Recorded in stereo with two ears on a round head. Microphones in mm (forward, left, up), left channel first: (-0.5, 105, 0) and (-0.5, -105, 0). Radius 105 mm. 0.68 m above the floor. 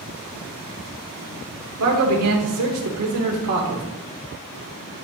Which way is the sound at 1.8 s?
70° right (ahead or behind).